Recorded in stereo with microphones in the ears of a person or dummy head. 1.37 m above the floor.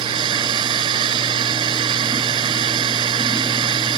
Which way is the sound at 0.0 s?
25° right (ahead or behind).